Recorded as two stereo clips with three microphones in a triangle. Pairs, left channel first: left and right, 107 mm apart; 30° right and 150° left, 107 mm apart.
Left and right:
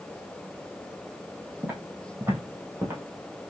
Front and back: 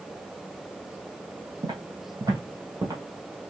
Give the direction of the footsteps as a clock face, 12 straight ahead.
6 o'clock.